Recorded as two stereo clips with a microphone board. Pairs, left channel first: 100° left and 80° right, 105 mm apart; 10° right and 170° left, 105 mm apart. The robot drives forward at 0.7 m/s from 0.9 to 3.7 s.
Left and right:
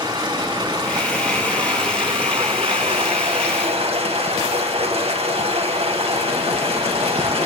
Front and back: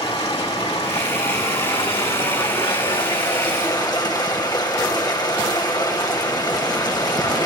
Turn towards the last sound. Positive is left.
turn(degrees=-60)